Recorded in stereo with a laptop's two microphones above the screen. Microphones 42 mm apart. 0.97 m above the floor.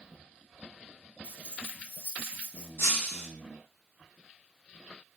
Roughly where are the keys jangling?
Left.